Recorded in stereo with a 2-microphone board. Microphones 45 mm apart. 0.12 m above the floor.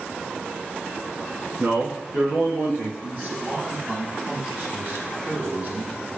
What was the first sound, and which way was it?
A man speaking, 55° right (ahead or behind).